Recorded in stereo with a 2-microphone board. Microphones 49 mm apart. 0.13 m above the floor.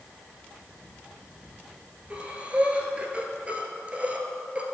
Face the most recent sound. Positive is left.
turn(degrees=-25)  # may be behind; listen again after turning